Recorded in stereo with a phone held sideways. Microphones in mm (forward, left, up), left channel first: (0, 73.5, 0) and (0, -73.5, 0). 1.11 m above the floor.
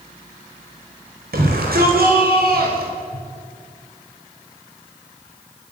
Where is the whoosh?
65° right (ahead or behind), 6 m.